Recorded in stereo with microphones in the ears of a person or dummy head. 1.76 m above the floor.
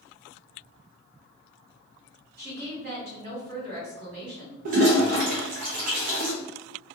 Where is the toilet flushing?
45° right (ahead or behind), 0.7 m.